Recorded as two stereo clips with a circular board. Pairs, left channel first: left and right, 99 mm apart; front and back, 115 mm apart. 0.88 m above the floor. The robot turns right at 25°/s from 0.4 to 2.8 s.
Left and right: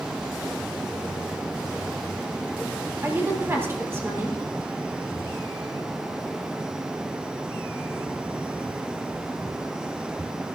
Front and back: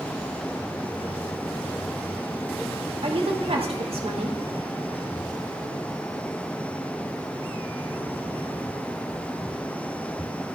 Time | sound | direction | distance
3.0 | a woman speaking | 155° right | 3.5 m